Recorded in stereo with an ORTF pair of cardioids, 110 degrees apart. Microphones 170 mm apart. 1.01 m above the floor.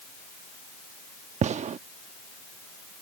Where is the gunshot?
45° right.